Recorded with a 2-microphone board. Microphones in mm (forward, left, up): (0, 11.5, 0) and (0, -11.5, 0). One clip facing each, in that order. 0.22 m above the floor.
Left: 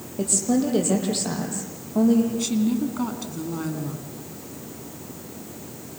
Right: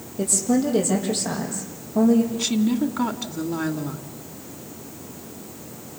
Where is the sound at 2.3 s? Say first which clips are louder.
Right 1 dB; 15° right (ahead or behind), 1.9 m.